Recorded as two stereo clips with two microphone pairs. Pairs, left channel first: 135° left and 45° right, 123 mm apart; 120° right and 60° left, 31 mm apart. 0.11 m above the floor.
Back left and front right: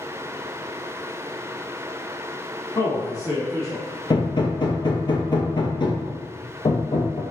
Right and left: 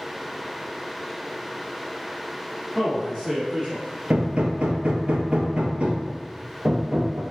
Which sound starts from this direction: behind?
A man speaking, at 2.8 s.